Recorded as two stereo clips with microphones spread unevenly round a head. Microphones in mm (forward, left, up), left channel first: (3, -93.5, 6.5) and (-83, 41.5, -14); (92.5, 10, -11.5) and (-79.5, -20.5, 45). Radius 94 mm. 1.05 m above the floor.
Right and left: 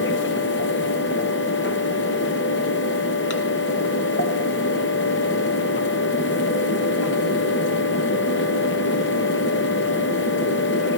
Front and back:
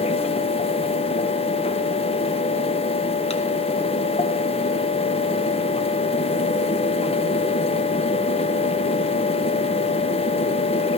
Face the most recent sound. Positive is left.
turn(degrees=-35)